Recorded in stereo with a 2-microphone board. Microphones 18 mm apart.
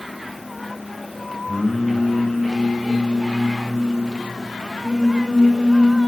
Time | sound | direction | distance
1.5 | singing | 70° left (ahead or behind) | 5 m